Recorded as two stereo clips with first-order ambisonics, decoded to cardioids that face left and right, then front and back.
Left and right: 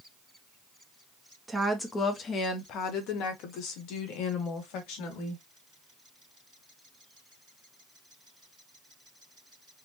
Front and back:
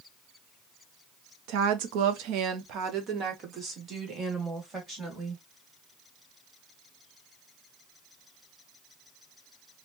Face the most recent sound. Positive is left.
turn(degrees=105)